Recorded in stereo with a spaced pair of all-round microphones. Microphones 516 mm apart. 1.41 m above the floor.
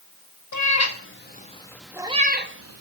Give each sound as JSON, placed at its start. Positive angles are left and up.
{"t": 0.5, "sound": "a cat meowing", "side_deg": 35, "distance_m": 1.1}